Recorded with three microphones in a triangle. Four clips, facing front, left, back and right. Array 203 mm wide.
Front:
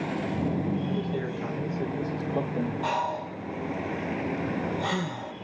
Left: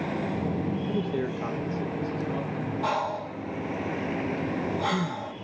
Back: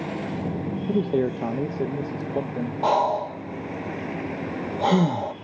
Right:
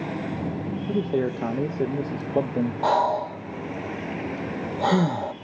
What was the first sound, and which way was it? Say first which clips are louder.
A man speaking: right 4 dB, back 7 dB; 165° right.